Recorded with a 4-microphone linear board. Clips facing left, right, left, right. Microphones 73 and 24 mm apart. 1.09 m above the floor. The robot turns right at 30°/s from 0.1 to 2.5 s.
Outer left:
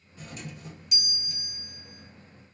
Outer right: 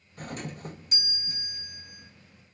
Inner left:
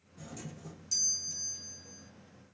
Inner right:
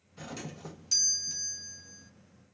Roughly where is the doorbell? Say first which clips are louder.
Outer right 5 dB, inner right 4 dB; right.